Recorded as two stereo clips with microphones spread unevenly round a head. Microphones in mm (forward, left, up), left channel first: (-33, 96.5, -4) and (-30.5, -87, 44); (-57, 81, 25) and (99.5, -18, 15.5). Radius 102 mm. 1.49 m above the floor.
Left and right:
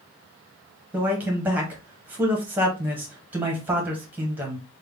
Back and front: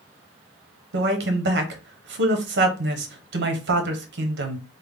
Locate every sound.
0.9 s a man speaking: 5° right, 1.1 m